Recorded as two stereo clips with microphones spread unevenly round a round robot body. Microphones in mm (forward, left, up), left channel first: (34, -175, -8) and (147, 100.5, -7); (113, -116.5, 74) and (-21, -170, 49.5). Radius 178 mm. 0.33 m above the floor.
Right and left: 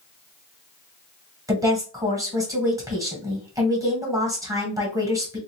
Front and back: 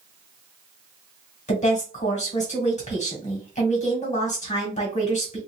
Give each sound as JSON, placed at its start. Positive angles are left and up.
{"t": 1.5, "sound": "a woman speaking", "azimuth_deg": -10, "distance_m": 2.0}